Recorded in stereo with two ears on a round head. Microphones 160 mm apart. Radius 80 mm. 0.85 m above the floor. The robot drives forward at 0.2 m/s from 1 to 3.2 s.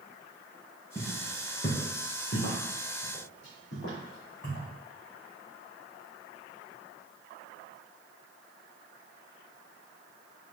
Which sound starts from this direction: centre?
Footsteps, at 0.9 s.